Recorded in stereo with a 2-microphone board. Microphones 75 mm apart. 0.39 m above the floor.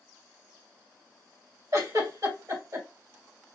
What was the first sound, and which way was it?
A giggle, 50° right (ahead or behind).